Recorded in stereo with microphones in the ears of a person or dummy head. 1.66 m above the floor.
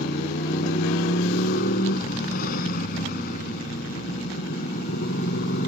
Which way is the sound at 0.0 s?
55° left (ahead or behind).